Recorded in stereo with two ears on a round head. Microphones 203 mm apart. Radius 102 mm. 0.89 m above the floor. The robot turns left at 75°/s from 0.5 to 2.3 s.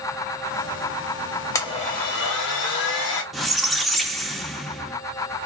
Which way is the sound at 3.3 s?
Centre (ahead or behind).